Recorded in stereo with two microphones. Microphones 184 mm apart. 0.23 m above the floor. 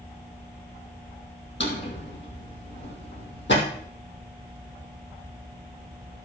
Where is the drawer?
80° left, 3.5 m.